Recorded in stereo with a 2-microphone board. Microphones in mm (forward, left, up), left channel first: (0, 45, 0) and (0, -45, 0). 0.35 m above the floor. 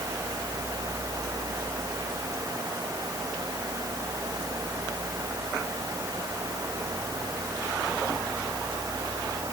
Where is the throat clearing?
No throat clearing in this recording.